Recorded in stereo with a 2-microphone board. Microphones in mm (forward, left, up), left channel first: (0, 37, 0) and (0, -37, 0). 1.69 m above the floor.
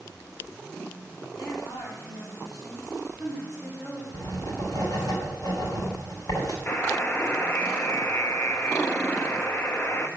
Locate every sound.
1.4 s a woman speaking: 60° left (ahead or behind), 5 m
4.1 s writing: 70° left (ahead or behind), 4 m
6.7 s a buzzer: 30° left (ahead or behind), 0.8 m